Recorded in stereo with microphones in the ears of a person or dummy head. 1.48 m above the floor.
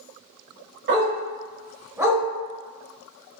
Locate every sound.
0.9 s a dog barking: 55° right (ahead or behind), 2 m; by 2.2 s centre (ahead or behind), 1.7 m